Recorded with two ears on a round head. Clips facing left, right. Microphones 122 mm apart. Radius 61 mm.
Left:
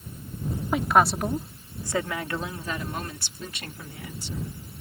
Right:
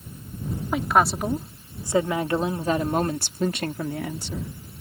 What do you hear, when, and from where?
0.7 s a woman speaking: centre (ahead or behind); by 4.5 s 60° right (ahead or behind)